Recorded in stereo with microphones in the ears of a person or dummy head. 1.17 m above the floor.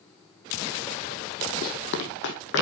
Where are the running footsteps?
55° left (ahead or behind), 2 m; by 2.6 s 60° left (ahead or behind), 2.5 m.